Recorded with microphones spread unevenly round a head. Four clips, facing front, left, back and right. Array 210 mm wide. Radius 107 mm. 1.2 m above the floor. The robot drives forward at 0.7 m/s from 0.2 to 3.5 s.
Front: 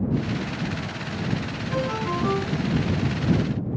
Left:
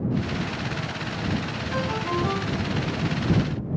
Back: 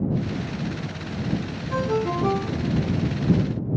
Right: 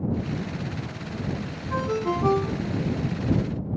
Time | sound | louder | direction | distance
1.7 | a ringtone | right 2 dB, back 3 dB | 130° right | 2.5 m